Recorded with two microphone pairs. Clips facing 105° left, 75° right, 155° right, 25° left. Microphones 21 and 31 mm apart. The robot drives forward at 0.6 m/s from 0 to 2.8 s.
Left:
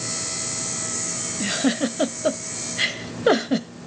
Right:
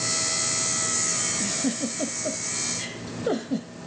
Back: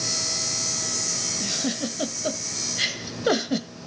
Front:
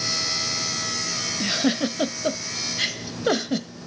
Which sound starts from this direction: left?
A giggle, at 1.4 s.